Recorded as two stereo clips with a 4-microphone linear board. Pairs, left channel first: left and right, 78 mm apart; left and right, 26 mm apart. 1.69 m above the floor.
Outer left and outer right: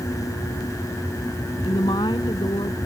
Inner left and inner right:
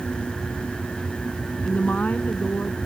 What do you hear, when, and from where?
1.6 s a woman speaking: 75° left (ahead or behind)